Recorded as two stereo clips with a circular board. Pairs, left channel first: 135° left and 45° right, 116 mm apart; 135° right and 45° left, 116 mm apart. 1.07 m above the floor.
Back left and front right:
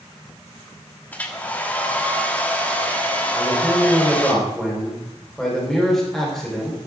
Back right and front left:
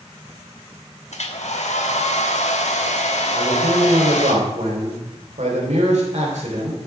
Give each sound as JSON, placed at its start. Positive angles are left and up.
{"t": 1.1, "sound": "a hair dryer", "azimuth_deg": -150, "distance_m": 1.4}
{"t": 3.3, "sound": "a man speaking", "azimuth_deg": 50, "distance_m": 4.5}